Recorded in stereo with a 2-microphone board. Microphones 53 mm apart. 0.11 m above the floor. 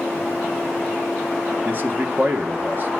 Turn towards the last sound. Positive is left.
turn(degrees=-45)  # may be behind; listen again after turning